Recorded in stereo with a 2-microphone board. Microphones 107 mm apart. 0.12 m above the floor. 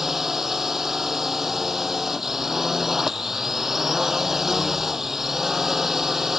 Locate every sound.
0.0 s a drone: 5° right (ahead or behind)